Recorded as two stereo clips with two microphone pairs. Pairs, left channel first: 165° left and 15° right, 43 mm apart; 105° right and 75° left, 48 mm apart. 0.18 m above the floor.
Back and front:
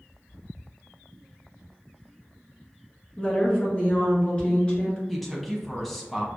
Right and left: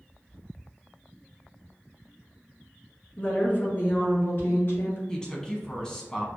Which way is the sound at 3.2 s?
145° right.